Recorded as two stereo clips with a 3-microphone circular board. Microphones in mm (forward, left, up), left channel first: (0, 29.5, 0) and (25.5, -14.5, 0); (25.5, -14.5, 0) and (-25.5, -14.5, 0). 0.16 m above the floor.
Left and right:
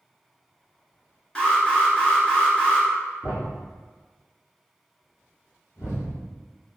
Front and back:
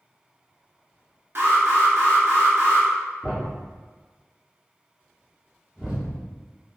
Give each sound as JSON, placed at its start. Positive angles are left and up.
{"t": 1.4, "sound": "an alarm", "azimuth_deg": -175, "distance_m": 1.4}
{"t": 3.2, "sound": "a thud", "azimuth_deg": 100, "distance_m": 1.6}